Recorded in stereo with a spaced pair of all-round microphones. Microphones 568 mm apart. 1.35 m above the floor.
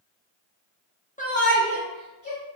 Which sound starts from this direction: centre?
A shout, at 1.2 s.